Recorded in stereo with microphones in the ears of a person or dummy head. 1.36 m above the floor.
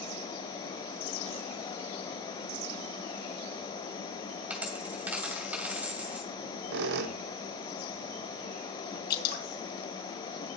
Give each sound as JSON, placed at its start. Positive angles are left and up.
{"t": 4.5, "sound": "a dropped coin", "side_deg": -5, "distance_m": 2.5}
{"t": 6.3, "sound": "a squeak", "side_deg": -60, "distance_m": 0.7}
{"t": 9.1, "sound": "dripping", "side_deg": 50, "distance_m": 2.5}